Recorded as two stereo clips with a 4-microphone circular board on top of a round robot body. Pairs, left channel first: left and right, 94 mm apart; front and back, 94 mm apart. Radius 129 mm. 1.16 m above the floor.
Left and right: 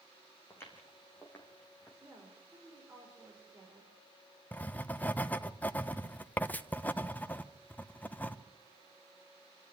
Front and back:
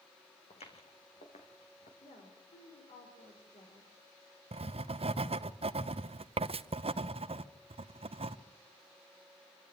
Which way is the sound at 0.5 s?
25° left.